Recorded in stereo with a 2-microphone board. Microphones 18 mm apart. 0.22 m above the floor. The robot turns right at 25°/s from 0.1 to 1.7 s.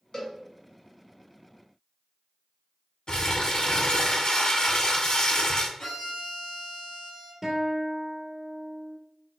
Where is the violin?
45° left (ahead or behind), 1.7 m.